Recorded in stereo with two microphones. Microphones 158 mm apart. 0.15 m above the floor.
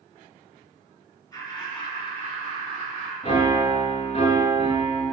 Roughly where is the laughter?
Left.